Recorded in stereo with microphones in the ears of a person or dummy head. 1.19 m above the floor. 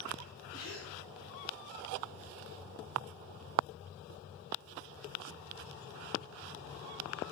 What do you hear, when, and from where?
0.5 s a gasp: 70° left (ahead or behind), 2 m